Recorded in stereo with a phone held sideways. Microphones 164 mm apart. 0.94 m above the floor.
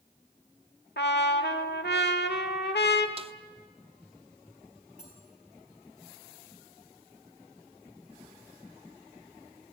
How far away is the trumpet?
About 1.3 m.